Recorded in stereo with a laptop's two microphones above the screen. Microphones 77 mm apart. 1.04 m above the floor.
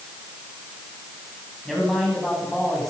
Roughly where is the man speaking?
Centre.